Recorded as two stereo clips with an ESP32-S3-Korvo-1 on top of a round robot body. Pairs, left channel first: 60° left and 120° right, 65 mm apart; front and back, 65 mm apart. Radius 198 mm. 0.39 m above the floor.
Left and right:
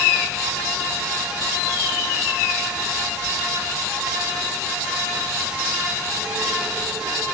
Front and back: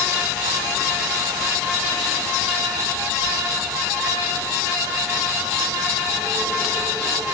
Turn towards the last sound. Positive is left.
No sound to turn to.